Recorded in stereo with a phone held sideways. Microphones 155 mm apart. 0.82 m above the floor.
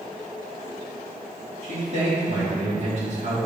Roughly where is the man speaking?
Right.